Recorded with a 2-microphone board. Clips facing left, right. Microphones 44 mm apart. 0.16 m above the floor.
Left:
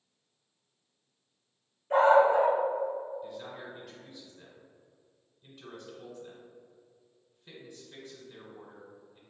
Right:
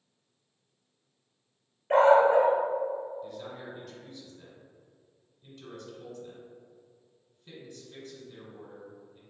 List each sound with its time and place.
1.9 s a dog barking: 65° right (ahead or behind), 1.2 m
3.2 s a man speaking: 10° left (ahead or behind), 1.6 m